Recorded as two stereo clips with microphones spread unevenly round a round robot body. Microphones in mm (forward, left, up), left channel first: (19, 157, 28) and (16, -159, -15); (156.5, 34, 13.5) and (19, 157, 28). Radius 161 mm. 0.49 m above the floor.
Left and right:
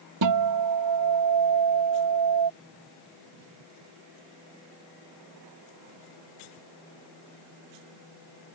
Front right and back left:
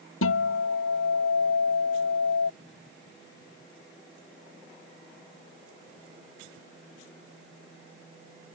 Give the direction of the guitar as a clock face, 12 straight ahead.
2 o'clock.